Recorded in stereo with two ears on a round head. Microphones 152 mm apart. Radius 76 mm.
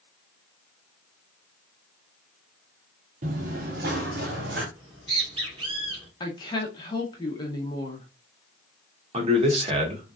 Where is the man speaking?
35° right (ahead or behind), 1.2 m.